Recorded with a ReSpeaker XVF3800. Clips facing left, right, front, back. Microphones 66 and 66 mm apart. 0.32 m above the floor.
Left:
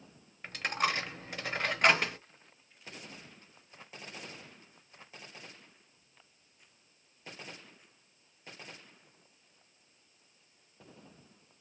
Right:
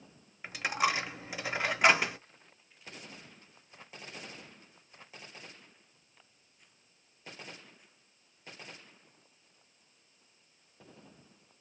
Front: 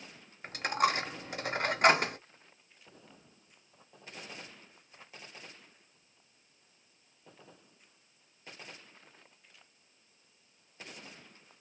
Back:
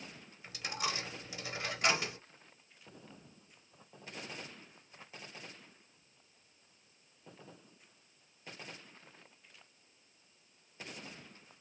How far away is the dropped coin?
About 0.5 m.